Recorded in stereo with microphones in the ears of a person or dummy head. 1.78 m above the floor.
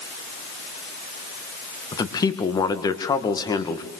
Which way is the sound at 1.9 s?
20° left (ahead or behind).